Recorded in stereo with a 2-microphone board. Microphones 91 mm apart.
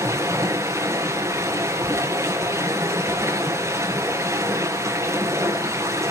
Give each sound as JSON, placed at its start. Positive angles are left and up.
{"t": 0.0, "sound": "running water", "side_deg": -35, "distance_m": 4.0}